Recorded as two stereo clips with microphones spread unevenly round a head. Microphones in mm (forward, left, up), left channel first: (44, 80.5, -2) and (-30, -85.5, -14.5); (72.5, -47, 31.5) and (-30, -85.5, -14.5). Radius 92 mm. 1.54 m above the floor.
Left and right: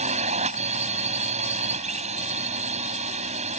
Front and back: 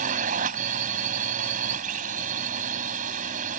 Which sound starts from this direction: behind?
A drone, at 0.0 s.